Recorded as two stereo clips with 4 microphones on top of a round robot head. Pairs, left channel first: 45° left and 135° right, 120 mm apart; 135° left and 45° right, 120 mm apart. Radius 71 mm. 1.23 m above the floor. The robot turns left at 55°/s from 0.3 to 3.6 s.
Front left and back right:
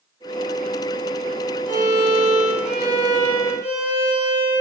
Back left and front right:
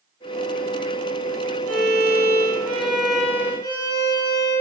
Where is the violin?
60° right, 1.5 m; by 4.6 s 170° right, 1.5 m.